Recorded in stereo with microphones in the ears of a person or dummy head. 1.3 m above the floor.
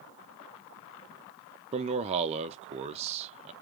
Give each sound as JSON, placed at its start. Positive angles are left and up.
{"t": 1.7, "sound": "a man speaking", "side_deg": -30, "distance_m": 0.6}